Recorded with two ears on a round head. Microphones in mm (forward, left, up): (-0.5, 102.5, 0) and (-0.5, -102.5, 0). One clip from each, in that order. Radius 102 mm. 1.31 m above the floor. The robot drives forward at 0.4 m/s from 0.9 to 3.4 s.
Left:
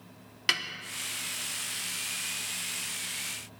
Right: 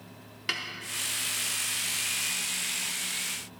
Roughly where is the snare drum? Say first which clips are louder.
Left 4 dB; left.